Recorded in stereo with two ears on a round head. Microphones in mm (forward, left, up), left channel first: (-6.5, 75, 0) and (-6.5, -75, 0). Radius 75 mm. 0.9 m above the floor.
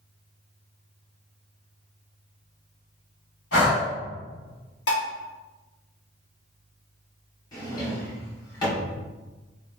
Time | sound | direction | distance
3.5 | breathing | 85° left | 1.8 m
4.9 | dishes clattering | 75° left (ahead or behind) | 1.0 m
7.5 | a drawer | 25° left (ahead or behind) | 1.5 m